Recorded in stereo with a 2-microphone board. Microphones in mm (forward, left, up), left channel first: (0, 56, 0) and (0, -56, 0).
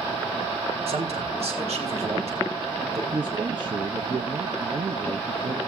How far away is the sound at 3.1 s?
About 0.7 m.